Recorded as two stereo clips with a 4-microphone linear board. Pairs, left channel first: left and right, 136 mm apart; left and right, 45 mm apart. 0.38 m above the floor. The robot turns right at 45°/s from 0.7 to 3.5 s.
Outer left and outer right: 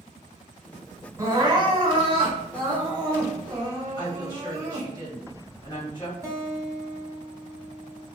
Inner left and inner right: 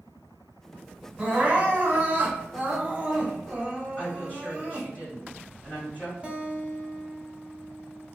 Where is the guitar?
25° right (ahead or behind), 0.7 m.